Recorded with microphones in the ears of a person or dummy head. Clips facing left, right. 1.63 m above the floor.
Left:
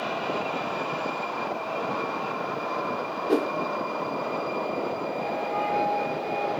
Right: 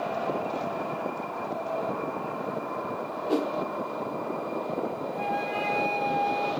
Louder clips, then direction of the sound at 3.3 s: Left 3 dB; 25° left (ahead or behind).